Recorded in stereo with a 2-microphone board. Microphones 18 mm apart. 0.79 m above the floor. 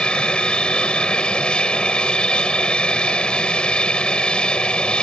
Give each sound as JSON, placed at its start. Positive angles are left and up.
{"t": 0.0, "sound": "an aircraft", "side_deg": 70}